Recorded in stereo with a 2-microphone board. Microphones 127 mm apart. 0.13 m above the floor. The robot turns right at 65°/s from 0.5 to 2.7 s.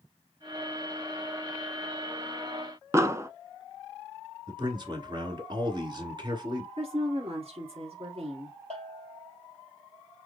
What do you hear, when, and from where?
2.9 s an explosion: 20° right (ahead or behind), 0.6 m
4.5 s a man speaking: 35° right (ahead or behind), 1.5 m
6.8 s a woman speaking: 55° right (ahead or behind), 1.8 m
8.7 s a bell: 55° right (ahead or behind), 1.7 m